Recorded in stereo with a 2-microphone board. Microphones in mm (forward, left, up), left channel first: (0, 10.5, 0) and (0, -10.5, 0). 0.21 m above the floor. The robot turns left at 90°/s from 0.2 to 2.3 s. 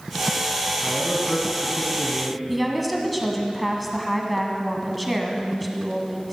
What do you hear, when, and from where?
0.8 s a man speaking: 95° left, 1.7 m; by 2.4 s 40° right, 1.7 m
2.5 s a woman speaking: centre (ahead or behind), 1.7 m